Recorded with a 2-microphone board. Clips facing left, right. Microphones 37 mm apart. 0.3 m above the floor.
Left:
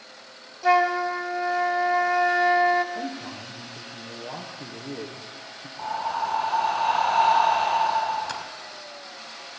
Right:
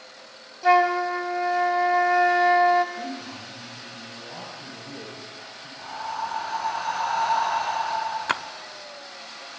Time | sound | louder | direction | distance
0.6 | a flute | right 1 dB | 5° right (ahead or behind) | 0.9 m
3.0 | a man speaking | left 1 dB | 70° left (ahead or behind) | 6 m
5.8 | breathing | left 4 dB | 45° left (ahead or behind) | 3 m
8.3 | a splash | right 7 dB | 50° right (ahead or behind) | 0.5 m